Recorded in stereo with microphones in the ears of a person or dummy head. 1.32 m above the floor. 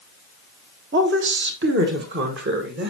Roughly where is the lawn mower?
No lawn mower in this recording.